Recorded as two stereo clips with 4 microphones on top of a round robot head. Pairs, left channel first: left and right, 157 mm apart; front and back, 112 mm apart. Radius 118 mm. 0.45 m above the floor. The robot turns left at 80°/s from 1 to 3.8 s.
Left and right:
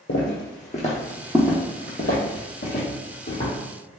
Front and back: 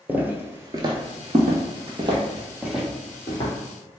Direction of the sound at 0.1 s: 105° left.